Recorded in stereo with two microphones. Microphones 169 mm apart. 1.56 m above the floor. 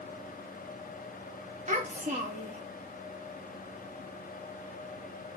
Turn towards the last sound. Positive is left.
turn(degrees=-45)  # may be behind; listen again after turning